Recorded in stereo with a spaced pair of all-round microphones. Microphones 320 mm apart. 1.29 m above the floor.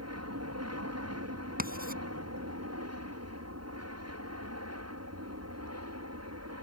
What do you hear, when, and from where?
0.0 s an aircraft: 50° right (ahead or behind)
1.6 s writing: 25° right (ahead or behind)